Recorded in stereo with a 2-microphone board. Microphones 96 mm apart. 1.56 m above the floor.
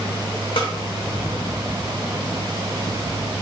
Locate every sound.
0.6 s a snare drum: 55° left (ahead or behind), 0.8 m